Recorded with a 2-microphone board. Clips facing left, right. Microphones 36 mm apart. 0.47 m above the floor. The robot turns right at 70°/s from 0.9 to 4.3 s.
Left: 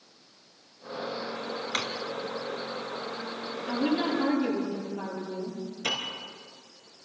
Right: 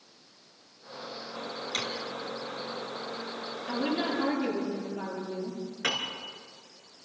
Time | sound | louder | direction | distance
1.7 | a drawer | left 1 dB | 40° left (ahead or behind) | 1.7 m
3.7 | a woman speaking | left 3 dB | 170° left | 10 m
5.8 | a piano | right 1 dB | 60° right (ahead or behind) | 3.5 m